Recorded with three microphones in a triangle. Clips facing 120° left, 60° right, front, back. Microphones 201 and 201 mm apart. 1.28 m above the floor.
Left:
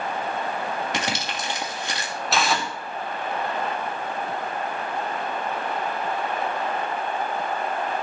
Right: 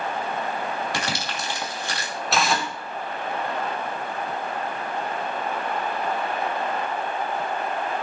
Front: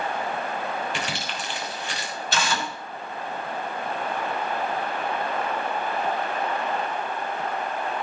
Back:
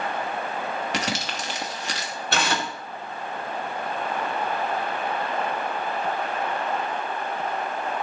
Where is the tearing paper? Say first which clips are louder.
Even, back 2 dB; 150° right, 2 m.